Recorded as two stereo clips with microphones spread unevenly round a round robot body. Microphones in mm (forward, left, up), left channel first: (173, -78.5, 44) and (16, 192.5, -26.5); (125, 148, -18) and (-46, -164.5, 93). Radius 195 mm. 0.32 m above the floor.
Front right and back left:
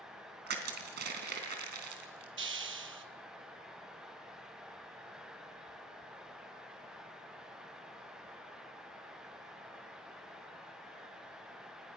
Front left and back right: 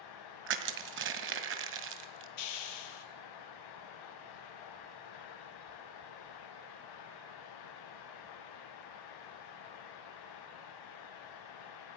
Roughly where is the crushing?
Behind.